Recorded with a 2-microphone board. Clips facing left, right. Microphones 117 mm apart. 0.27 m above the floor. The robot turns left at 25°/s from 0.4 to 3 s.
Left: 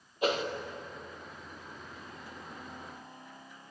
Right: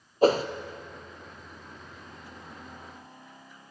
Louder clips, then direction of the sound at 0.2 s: Right 9 dB; 40° right (ahead or behind).